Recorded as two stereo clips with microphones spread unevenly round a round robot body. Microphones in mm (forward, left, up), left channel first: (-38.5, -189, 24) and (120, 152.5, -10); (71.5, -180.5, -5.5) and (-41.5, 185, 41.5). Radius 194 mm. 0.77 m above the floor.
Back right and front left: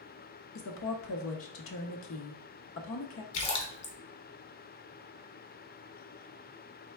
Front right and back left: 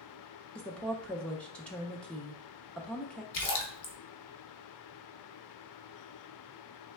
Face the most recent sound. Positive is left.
turn(degrees=-115)